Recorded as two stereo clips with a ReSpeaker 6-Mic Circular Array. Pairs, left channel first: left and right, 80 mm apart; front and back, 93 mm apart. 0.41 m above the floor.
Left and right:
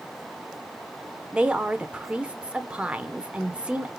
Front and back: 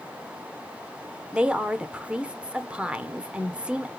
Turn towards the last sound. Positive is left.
turn(degrees=-130)